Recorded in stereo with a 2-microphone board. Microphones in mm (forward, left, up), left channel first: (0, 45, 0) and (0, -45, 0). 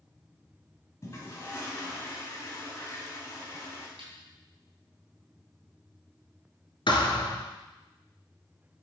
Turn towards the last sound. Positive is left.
turn(degrees=65)  # may be behind; listen again after turning